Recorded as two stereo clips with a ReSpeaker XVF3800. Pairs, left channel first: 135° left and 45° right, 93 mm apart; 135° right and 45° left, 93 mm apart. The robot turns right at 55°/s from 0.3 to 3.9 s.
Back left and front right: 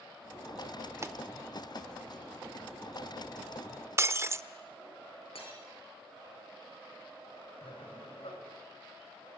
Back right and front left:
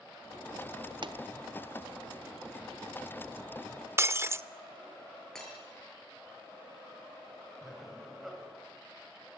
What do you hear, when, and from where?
1.0 s a pop: 10° left, 1.2 m; by 1.2 s 20° left, 1.2 m
4.0 s breaking glass: straight ahead, 0.6 m
5.3 s breaking glass: 140° left, 6.5 m
7.6 s laughter: 135° left, 5 m